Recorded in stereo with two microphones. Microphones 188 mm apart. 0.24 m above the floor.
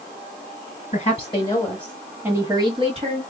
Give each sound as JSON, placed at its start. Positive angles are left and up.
{"t": 0.9, "sound": "a woman speaking", "side_deg": 35, "distance_m": 1.5}